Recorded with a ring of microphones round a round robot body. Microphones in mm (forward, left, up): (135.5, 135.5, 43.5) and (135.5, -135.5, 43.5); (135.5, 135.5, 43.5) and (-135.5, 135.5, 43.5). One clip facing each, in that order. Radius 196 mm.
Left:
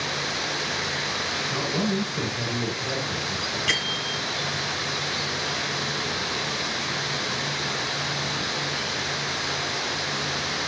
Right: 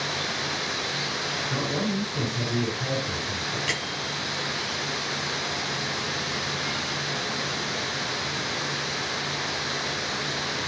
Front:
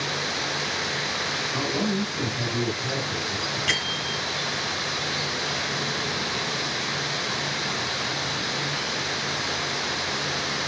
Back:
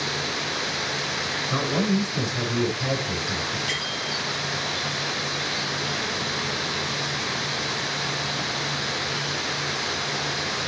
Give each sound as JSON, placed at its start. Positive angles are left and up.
{"t": 1.5, "sound": "a man speaking", "azimuth_deg": -155, "distance_m": 6.5}
{"t": 3.7, "sound": "a bell", "azimuth_deg": 20, "distance_m": 3.0}